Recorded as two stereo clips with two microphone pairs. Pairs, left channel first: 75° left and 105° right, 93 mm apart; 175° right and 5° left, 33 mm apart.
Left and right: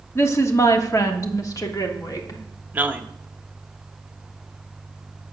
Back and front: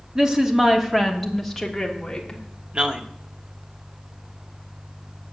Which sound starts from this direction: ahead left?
A woman speaking, at 0.1 s.